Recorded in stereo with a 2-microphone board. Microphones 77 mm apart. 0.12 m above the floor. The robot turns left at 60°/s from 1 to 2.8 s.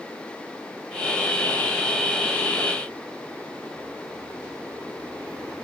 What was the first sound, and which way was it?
Only background noise.